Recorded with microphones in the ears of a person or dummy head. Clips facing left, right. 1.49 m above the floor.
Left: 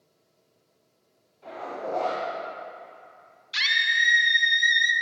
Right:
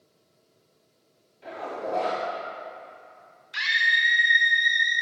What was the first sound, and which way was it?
A zipper, 25° right (ahead or behind).